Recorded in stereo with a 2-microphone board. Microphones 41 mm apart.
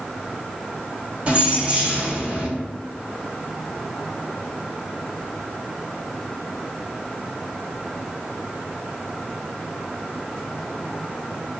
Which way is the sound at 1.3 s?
30° right (ahead or behind).